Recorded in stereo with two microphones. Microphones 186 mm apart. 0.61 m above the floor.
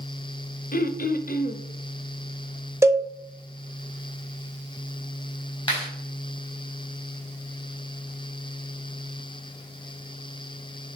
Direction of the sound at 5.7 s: 25° left (ahead or behind).